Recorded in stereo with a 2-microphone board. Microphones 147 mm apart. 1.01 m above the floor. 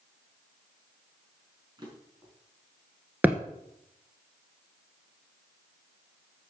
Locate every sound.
1.8 s a drawer: 30° right (ahead or behind), 4 m
3.2 s a thud: 10° right (ahead or behind), 1.4 m